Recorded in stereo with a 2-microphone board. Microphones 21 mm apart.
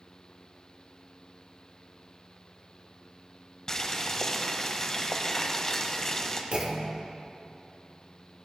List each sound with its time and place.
3.7 s boiling: 25° left (ahead or behind), 0.9 m
6.5 s a clunk: 55° right (ahead or behind), 1.3 m